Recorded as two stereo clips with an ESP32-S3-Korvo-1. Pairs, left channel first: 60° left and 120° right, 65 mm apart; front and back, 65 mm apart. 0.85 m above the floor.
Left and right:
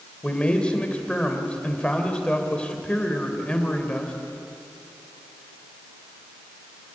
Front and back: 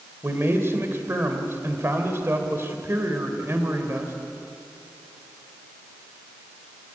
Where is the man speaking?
130° left, 3 m.